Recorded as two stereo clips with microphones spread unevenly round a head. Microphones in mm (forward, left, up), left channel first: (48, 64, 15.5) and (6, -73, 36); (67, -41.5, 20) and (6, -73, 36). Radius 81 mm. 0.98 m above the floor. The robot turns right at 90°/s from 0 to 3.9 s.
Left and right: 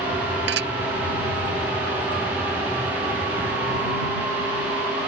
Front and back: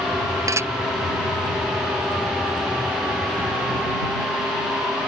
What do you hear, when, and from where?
0.5 s dishes clattering: 115° right; by 0.7 s 95° right